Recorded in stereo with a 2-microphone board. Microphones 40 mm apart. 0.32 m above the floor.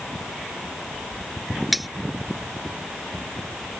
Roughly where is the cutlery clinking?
Centre.